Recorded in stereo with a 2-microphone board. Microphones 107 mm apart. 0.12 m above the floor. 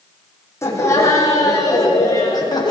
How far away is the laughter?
About 7.5 m.